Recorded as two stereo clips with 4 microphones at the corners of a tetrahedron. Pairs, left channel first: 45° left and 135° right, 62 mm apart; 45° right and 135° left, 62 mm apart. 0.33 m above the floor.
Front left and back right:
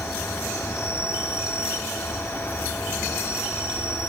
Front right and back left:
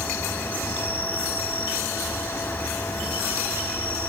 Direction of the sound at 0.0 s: 10° left.